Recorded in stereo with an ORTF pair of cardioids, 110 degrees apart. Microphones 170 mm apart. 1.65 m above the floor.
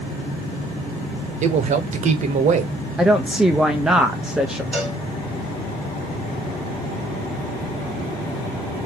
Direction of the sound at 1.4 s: 45° right.